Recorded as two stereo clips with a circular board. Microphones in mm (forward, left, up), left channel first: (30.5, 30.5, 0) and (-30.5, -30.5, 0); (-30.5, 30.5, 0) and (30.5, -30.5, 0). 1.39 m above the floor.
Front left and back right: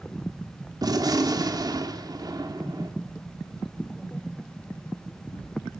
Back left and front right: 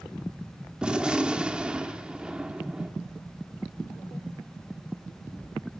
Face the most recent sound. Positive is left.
turn(degrees=-120)